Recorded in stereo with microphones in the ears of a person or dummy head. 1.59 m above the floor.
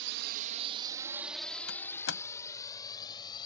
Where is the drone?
75° right (ahead or behind); by 3.5 s 25° left (ahead or behind).